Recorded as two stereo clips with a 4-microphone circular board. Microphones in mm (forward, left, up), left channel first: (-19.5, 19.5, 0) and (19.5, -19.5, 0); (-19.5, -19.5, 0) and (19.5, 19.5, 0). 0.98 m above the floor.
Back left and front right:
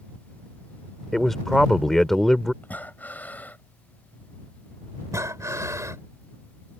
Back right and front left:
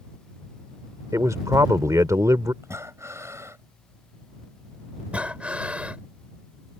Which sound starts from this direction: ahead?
Breathing, at 5.1 s.